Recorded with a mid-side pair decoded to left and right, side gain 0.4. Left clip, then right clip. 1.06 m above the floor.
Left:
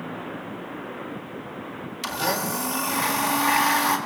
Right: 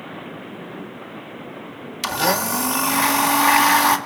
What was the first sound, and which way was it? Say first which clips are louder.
A blender: right 6 dB; 50° right.